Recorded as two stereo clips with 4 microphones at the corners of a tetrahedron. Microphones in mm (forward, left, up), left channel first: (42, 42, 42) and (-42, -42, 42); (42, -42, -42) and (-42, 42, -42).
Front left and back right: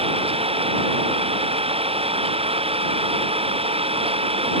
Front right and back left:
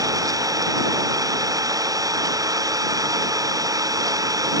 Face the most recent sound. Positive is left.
turn(degrees=-165)